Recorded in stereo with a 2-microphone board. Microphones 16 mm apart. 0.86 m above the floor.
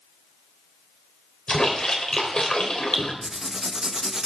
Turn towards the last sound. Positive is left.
turn(degrees=-40)  # may be behind; listen again after turning